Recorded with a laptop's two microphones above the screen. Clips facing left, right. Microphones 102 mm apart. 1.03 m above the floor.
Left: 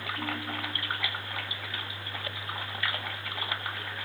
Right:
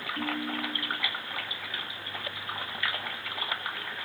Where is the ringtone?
85° right, 7.5 m.